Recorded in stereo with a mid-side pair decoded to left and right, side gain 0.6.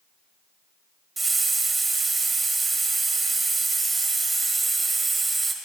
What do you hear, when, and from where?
1.2 s a hiss: 30° right, 1.5 m